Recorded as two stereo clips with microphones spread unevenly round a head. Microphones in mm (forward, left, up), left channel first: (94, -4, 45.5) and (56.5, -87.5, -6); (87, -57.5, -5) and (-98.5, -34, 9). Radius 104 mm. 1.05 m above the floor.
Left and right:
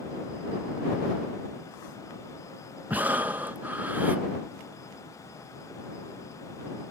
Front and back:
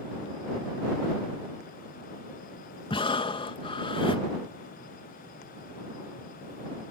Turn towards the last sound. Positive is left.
turn(degrees=-65)